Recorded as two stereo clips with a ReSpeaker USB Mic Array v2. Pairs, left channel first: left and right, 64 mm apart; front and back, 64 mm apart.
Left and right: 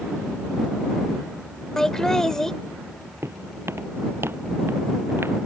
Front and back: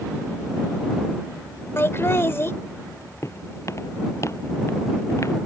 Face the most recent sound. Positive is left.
turn(degrees=-40)